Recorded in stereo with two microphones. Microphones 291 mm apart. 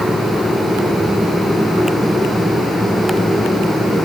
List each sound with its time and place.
Only background noise.